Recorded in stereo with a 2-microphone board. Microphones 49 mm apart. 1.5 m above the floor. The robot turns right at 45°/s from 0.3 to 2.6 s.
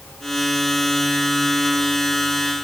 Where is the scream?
No scream in this recording.